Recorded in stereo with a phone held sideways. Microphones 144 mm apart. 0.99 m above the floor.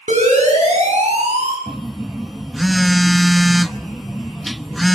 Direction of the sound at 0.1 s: 55° right (ahead or behind).